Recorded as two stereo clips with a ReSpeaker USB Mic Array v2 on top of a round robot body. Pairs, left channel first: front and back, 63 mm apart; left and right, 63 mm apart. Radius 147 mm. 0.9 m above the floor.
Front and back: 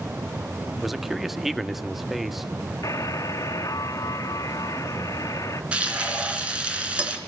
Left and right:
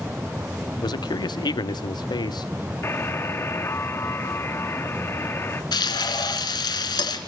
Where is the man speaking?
90° left, 1.8 m.